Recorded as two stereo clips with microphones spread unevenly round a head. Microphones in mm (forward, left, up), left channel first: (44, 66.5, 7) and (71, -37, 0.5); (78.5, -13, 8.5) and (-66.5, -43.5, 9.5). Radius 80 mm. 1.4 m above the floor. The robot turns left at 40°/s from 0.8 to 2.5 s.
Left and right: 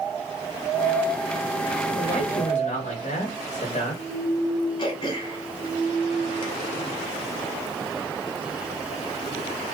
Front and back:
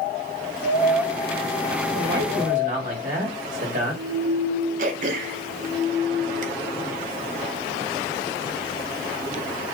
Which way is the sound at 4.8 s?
160° left.